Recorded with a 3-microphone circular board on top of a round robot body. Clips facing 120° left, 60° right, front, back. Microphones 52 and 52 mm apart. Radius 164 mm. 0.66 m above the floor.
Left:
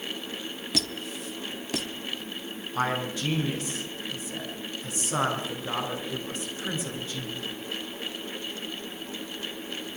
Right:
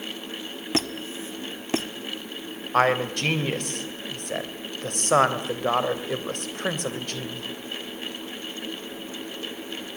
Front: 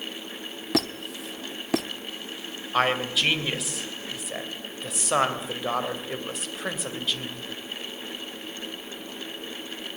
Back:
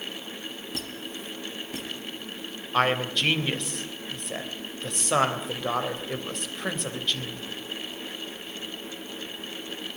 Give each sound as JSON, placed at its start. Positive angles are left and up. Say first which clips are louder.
{"t": 0.7, "sound": "a squeak", "louder": "right 6 dB, front 13 dB", "azimuth_deg": 0, "distance_m": 1.0}
{"t": 2.7, "sound": "a man speaking", "louder": "right 7 dB, even", "azimuth_deg": -85, "distance_m": 3.0}